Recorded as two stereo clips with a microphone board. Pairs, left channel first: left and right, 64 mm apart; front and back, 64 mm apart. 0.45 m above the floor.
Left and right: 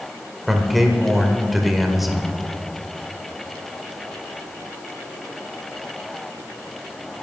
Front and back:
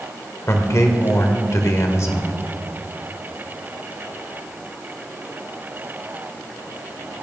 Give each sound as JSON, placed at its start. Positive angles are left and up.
{"t": 0.5, "sound": "a man speaking", "azimuth_deg": -5, "distance_m": 1.7}